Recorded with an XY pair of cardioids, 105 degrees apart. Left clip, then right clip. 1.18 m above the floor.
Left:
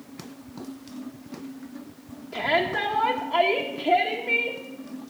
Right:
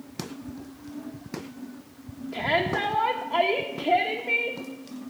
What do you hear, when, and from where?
2.3 s a shout: straight ahead, 1.0 m